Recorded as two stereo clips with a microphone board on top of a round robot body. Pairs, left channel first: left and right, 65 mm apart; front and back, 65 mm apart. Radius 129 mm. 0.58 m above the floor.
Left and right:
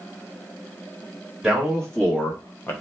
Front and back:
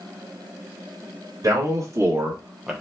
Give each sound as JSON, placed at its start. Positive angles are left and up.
{"t": 1.4, "sound": "a man speaking", "azimuth_deg": 180, "distance_m": 1.9}